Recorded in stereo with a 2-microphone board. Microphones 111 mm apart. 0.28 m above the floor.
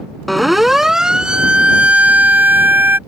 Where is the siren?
Centre (ahead or behind); by 3.0 s 20° right (ahead or behind).